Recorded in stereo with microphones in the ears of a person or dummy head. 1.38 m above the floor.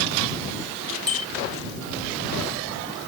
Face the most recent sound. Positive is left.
turn(degrees=0)  # may be behind; listen again after turning